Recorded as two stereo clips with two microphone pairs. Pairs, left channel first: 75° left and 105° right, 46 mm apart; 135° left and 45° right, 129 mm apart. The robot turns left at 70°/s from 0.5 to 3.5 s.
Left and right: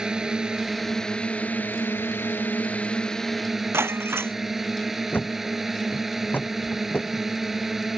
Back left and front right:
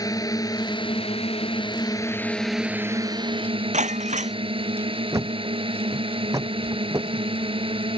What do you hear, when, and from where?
0.0 s a drone: 175° right; by 8.0 s 25° right
3.7 s breaking glass: 70° right
5.1 s a thud: 25° left